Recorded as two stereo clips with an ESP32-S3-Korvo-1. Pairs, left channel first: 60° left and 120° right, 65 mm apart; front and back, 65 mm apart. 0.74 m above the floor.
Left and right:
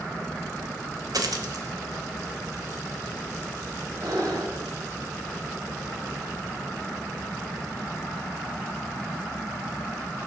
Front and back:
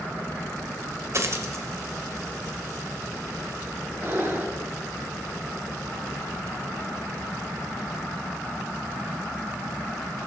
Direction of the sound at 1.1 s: 135° right.